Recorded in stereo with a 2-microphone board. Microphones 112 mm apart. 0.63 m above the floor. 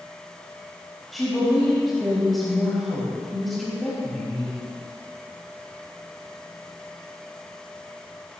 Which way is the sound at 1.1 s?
Centre (ahead or behind).